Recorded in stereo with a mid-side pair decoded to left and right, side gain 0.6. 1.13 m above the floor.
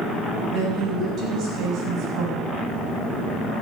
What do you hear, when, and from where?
0.5 s a woman speaking: 55° right, 7 m